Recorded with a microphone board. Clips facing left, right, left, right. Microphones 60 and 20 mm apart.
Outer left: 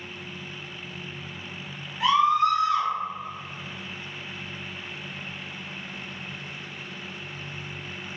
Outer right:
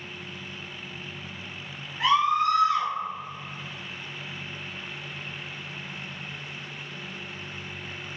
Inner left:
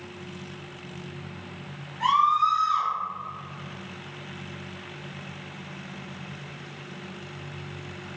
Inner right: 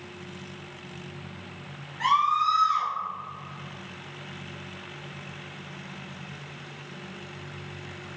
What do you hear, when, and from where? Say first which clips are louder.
2.0 s a scream: outer left 2 dB, inner left 2 dB; 40° right (ahead or behind), 2.0 m